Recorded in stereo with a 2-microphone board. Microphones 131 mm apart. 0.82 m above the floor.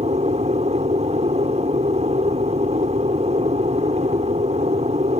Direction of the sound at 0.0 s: 55° right (ahead or behind).